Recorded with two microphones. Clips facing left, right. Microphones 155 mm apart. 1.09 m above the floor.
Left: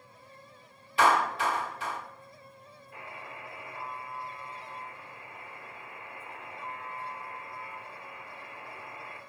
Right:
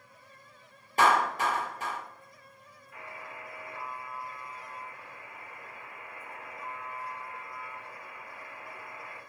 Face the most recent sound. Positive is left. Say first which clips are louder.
# even
turn(degrees=30)  # may be behind; listen again after turning